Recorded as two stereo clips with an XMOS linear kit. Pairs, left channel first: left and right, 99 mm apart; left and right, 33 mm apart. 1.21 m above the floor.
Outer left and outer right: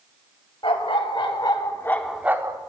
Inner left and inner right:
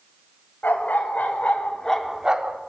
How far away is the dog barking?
About 2 m.